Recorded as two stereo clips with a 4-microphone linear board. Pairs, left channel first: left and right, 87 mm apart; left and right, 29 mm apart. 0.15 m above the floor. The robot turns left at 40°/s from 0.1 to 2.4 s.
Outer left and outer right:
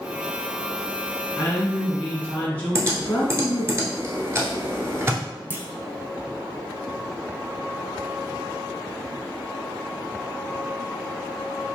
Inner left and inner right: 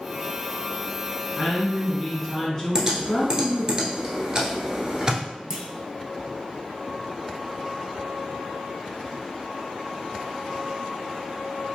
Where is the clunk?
20° right (ahead or behind), 0.5 m.